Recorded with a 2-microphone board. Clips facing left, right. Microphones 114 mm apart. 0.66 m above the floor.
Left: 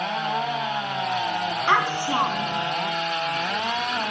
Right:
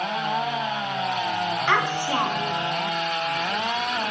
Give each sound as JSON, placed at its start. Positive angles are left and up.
{"t": 1.7, "sound": "a child speaking", "side_deg": 20, "distance_m": 3.5}